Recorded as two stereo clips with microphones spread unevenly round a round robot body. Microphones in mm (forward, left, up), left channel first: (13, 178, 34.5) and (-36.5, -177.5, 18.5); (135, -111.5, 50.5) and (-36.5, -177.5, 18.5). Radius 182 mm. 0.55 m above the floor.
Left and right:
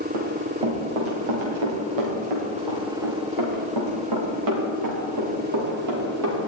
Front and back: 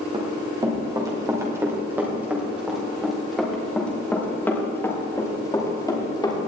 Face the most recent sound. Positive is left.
turn(degrees=-45)